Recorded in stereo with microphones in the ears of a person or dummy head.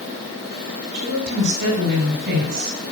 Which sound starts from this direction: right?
A woman speaking, at 0.9 s.